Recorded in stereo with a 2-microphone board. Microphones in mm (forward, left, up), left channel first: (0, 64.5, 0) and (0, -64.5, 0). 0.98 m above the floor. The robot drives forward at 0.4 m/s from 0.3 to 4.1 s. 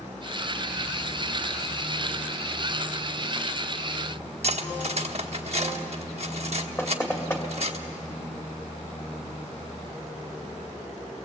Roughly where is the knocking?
Centre.